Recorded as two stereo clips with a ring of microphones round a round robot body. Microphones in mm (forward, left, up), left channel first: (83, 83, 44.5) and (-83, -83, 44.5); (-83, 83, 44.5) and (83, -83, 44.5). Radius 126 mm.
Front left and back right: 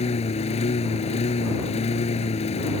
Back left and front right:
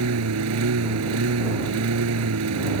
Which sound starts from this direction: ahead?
A lawn mower, at 0.0 s.